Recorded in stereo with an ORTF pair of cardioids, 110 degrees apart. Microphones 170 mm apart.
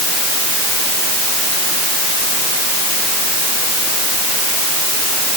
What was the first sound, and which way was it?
Only background noise.